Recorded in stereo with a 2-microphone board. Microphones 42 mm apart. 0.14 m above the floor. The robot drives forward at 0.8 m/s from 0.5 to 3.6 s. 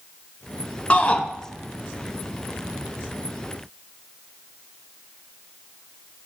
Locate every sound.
0.9 s a shout: 35° left (ahead or behind), 1.2 m